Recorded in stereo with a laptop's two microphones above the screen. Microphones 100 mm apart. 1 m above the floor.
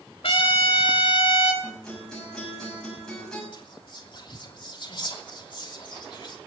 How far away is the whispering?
About 2.5 m.